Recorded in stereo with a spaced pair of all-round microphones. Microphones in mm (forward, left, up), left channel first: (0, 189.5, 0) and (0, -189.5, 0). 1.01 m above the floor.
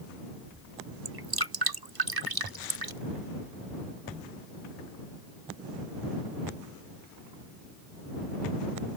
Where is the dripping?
70° right (ahead or behind).